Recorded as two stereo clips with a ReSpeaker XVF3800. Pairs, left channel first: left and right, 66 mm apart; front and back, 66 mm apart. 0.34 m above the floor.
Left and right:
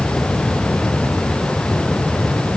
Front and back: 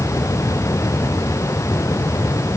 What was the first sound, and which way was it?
Only background noise.